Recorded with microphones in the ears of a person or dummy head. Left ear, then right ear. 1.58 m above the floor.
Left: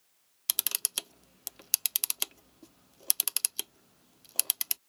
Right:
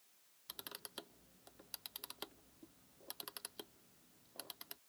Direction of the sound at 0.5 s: 70° left (ahead or behind).